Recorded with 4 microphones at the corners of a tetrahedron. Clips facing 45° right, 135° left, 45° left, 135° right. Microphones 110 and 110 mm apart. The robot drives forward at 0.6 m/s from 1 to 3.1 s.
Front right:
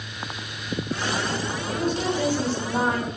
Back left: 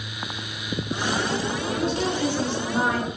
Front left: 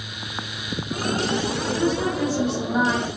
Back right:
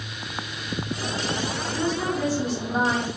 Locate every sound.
1.7 s a woman speaking: 30° right, 1.6 m; by 3.1 s 75° right, 1.2 m